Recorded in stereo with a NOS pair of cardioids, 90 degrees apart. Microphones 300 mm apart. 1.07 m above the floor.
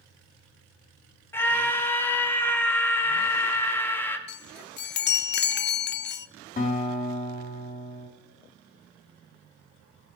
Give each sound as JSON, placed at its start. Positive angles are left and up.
{"t": 1.3, "sound": "a scream", "azimuth_deg": 5, "distance_m": 1.9}
{"t": 4.3, "sound": "a chime", "azimuth_deg": 35, "distance_m": 0.5}
{"t": 6.6, "sound": "a guitar", "azimuth_deg": 30, "distance_m": 3.0}